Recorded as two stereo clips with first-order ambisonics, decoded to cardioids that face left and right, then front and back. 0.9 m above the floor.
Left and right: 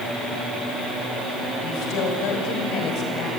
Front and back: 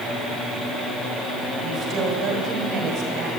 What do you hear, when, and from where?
1.6 s a woman speaking: 120° left, 5.5 m; by 3.3 s 135° left, 4.5 m